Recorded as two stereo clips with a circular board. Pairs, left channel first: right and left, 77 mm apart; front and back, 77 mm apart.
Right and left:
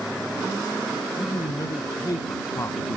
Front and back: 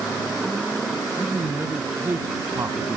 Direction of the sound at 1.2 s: 115° right.